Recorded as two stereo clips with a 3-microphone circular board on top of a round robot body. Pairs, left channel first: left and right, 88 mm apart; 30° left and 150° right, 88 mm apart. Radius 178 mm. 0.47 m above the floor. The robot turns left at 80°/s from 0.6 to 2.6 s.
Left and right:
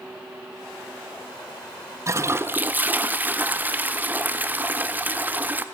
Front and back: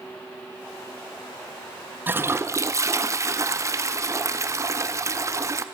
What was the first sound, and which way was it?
A toilet flushing, 100° right.